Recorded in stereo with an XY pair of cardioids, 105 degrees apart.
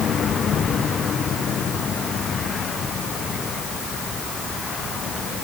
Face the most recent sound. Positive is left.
No sound to turn to.